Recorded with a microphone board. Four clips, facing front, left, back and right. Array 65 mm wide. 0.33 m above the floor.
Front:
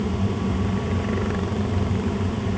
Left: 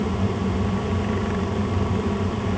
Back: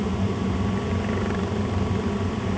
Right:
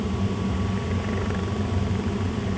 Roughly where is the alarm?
No alarm in this recording.